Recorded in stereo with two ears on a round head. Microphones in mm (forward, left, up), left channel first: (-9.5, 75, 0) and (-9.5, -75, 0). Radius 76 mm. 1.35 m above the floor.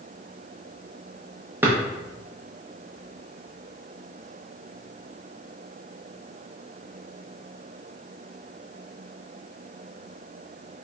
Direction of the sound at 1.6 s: 10° right (ahead or behind).